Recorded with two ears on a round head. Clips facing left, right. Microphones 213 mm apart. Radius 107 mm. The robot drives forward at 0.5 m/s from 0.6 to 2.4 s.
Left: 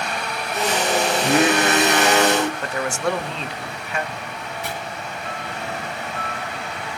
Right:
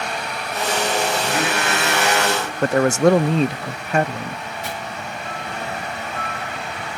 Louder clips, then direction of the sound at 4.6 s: Left 1 dB; 50° left (ahead or behind).